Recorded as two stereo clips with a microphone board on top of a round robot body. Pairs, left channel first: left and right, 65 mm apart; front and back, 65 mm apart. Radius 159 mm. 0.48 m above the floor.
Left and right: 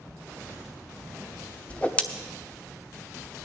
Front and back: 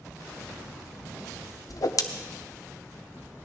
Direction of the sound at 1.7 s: 20° left.